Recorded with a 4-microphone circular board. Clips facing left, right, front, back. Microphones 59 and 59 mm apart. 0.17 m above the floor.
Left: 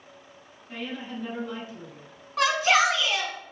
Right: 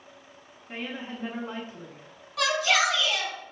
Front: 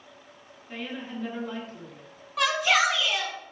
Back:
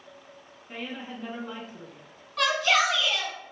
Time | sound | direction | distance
0.7 | a woman speaking | 115° right | 1.3 m
2.4 | a shout | 80° left | 1.5 m